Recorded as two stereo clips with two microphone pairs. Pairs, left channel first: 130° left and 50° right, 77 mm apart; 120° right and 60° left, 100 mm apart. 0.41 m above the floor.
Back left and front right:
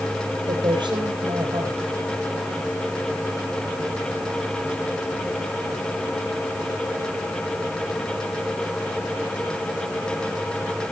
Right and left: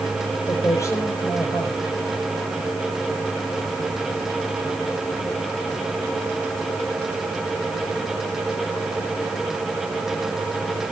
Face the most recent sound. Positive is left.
turn(degrees=-65)